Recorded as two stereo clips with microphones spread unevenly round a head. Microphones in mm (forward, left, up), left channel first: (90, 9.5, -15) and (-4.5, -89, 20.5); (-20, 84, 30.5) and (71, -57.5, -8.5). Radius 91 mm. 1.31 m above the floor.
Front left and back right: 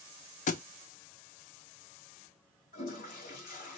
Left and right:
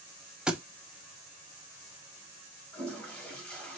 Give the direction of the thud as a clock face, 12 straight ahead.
11 o'clock.